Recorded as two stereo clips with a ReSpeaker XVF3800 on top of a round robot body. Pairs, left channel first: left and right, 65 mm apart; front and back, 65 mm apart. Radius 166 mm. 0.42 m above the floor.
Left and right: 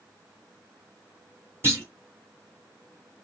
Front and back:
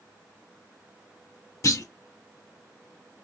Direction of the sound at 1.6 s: 35° right.